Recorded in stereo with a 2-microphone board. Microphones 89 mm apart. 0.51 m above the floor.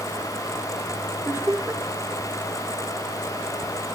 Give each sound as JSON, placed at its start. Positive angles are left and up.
{"t": 1.2, "sound": "laughter", "side_deg": -30}